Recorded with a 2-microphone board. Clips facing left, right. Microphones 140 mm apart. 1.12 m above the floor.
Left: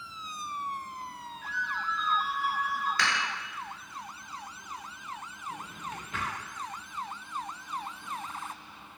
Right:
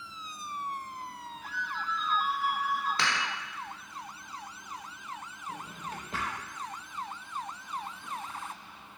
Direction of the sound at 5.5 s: 35° right (ahead or behind).